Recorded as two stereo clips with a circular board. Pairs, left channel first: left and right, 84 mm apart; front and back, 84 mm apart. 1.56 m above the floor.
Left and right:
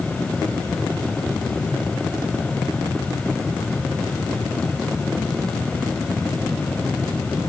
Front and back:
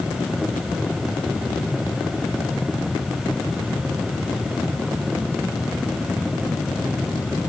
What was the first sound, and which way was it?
Only background noise.